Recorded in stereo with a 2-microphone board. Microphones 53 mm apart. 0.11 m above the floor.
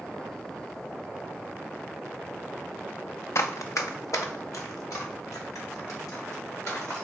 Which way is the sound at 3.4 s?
60° left (ahead or behind).